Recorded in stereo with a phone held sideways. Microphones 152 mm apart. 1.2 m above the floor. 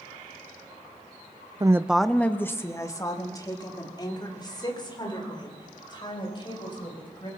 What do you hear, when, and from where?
1.6 s a woman speaking: 30° right (ahead or behind), 0.6 m; by 7.3 s 35° left (ahead or behind), 7.5 m